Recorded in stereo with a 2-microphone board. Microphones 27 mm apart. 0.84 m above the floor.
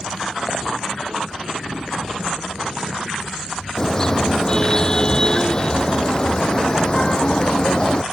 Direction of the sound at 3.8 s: 20° left (ahead or behind).